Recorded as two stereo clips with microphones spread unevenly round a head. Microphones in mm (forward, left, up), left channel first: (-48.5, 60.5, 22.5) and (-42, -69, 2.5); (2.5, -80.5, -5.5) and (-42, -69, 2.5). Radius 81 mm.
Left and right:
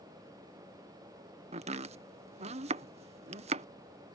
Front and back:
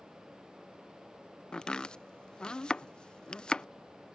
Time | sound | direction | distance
1.5 | chopping | 75° right | ?